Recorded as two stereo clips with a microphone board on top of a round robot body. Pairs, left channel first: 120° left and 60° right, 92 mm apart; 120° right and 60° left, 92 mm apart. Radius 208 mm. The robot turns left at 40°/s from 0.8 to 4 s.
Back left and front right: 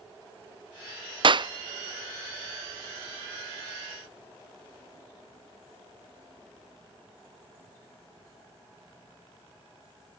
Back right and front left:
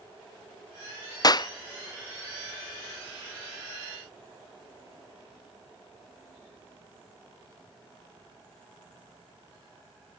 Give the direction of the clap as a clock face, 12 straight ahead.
3 o'clock.